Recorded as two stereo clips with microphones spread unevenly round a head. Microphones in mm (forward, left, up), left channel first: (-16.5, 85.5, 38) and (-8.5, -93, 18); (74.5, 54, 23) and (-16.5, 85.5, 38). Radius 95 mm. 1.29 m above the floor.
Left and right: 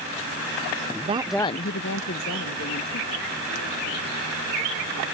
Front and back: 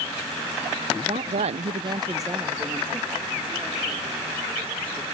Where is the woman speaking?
140° right; by 5.0 s 90° left.